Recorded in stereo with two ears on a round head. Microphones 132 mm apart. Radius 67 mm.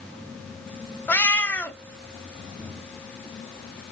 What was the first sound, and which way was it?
A cat meowing, 15° left (ahead or behind).